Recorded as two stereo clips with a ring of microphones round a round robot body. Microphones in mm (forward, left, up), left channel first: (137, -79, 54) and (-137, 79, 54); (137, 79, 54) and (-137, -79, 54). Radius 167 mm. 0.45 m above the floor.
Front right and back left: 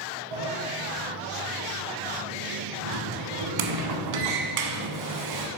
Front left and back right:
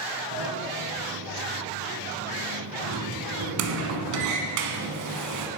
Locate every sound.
0.3 s a sliding door: 170° left, 1.1 m